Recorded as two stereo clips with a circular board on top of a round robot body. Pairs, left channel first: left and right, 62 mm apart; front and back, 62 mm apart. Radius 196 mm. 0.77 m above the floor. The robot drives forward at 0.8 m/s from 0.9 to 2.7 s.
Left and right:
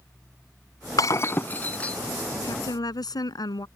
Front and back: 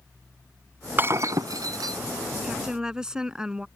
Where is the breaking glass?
120° left; by 2.0 s 160° left.